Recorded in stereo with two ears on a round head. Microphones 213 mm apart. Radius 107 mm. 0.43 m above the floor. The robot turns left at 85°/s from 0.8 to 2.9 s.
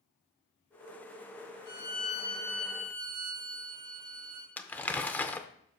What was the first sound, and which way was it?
A violin, 85° left.